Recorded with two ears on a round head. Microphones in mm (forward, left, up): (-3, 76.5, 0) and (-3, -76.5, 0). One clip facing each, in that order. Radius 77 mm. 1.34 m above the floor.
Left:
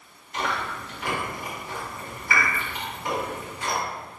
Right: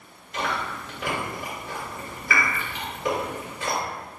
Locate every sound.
0.3 s chewing: 55° right (ahead or behind), 1.5 m